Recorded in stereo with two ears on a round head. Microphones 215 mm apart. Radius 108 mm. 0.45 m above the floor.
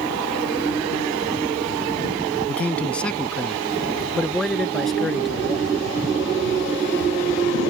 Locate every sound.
2.5 s a man speaking: 5° left (ahead or behind); by 5.7 s centre (ahead or behind)